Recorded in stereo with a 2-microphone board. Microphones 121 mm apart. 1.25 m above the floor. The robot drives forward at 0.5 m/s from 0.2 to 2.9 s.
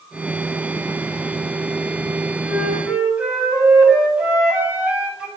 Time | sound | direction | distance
2.5 | a flute | 10° right (ahead or behind) | 7.5 m